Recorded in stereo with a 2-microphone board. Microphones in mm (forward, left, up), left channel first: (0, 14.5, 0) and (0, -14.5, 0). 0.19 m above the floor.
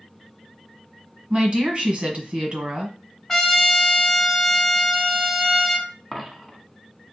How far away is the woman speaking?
About 1.4 m.